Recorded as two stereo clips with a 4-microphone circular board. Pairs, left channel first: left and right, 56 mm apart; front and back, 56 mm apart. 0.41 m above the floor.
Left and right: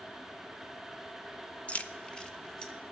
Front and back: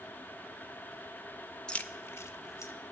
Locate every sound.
1.7 s keys jangling: 60° left, 0.5 m; by 2.7 s 10° left, 1.3 m